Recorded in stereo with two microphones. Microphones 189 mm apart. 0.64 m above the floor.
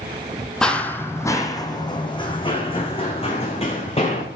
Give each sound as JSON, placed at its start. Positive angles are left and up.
{"t": 0.6, "sound": "running footsteps", "side_deg": 5, "distance_m": 0.9}